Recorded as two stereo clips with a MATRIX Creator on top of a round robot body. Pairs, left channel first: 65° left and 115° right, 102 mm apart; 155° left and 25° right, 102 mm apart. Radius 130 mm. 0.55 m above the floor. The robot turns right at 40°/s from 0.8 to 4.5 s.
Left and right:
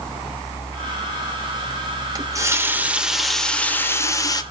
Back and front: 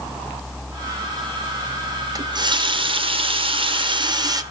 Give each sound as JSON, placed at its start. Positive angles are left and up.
{"t": 2.1, "sound": "a running tap", "azimuth_deg": -65, "distance_m": 0.7}